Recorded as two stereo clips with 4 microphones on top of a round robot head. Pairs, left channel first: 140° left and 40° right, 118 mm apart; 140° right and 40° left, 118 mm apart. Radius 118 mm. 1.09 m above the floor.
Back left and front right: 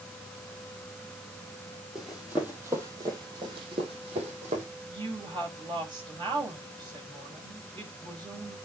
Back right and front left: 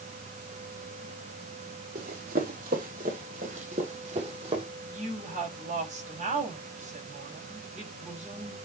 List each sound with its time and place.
1.9 s running footsteps: 50° left, 2 m; by 4.7 s 5° right, 2.5 m
4.9 s a woman speaking: 15° left, 6 m